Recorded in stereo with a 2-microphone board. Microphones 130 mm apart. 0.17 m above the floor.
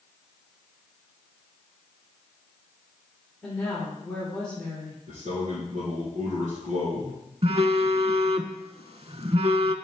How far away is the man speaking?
About 4 m.